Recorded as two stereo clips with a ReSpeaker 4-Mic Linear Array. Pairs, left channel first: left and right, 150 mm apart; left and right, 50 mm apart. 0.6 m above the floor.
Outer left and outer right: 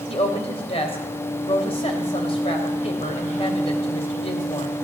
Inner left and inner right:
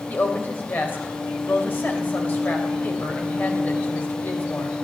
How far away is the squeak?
No squeak in this recording.